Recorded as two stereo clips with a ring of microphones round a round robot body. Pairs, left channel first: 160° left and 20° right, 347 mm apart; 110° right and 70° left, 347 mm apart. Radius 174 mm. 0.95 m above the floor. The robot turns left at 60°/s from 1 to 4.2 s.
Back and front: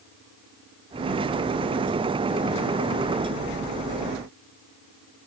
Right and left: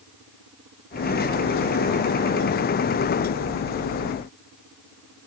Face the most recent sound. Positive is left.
No sound to turn to.